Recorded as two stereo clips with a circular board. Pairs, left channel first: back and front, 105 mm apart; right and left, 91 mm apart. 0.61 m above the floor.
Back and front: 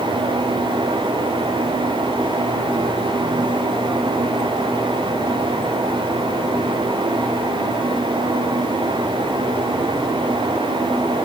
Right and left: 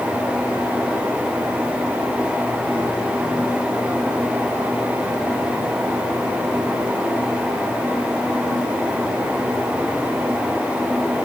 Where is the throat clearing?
I don't hear throat clearing.